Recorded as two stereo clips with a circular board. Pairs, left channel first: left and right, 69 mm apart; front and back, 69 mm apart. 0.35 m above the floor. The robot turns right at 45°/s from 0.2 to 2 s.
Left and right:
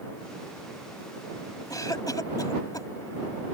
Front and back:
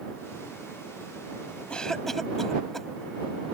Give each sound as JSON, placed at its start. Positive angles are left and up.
{"t": 1.7, "sound": "a cough", "azimuth_deg": 75}